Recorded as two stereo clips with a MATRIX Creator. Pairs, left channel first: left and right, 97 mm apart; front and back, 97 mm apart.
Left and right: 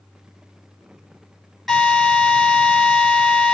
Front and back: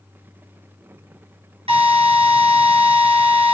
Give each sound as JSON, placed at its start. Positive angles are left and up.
{"t": 1.7, "sound": "a drill", "azimuth_deg": 180, "distance_m": 5.0}